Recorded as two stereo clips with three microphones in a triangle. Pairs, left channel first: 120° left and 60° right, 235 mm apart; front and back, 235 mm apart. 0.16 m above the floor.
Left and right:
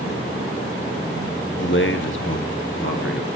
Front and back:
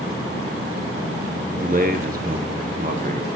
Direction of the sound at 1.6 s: 135° left.